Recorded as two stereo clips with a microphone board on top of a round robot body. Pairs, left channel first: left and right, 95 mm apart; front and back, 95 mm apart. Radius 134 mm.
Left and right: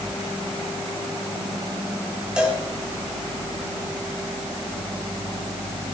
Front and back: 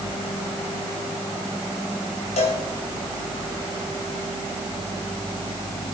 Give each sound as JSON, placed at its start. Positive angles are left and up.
{"t": 2.4, "sound": "a cowbell", "azimuth_deg": -10, "distance_m": 2.5}